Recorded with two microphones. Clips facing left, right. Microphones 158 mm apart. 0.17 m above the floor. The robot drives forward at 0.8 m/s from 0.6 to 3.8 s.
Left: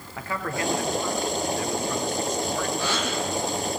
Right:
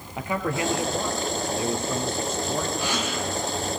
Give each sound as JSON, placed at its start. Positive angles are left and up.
{"t": 0.2, "sound": "a man speaking", "side_deg": -20, "distance_m": 4.0}
{"t": 2.8, "sound": "a gasp", "side_deg": -15, "distance_m": 7.5}